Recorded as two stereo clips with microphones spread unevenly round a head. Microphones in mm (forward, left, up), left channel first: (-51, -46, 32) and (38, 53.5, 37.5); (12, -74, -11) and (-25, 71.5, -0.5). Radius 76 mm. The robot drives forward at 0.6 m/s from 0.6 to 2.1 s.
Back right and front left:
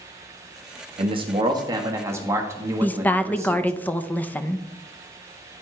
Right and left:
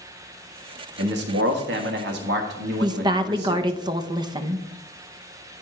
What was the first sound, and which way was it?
A man speaking, 95° left.